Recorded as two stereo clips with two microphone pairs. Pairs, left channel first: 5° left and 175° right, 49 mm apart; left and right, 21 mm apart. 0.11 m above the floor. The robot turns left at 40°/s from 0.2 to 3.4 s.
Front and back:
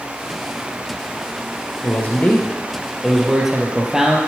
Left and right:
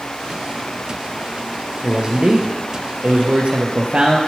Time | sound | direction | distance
1.8 | a man speaking | 30° right | 3 m